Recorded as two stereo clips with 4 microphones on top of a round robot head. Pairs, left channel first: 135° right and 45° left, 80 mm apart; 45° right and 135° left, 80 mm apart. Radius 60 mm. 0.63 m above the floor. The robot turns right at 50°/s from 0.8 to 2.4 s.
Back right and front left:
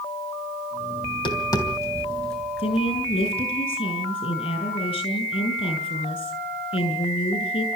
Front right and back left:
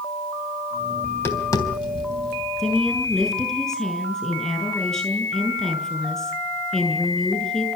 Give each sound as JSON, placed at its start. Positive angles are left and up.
{"t": 1.0, "sound": "tapping", "azimuth_deg": -115, "distance_m": 3.5}
{"t": 2.6, "sound": "a woman speaking", "azimuth_deg": -125, "distance_m": 8.0}